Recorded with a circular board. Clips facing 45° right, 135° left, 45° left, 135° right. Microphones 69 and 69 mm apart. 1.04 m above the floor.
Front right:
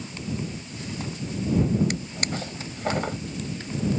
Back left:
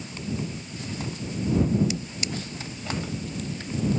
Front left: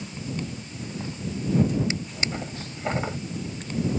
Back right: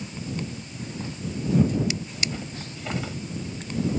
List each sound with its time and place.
1.9 s a drawer: 15° right